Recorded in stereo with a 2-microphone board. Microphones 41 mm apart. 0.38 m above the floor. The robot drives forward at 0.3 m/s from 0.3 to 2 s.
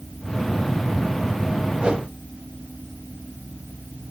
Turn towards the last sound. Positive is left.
turn(degrees=-25)  # may be behind; listen again after turning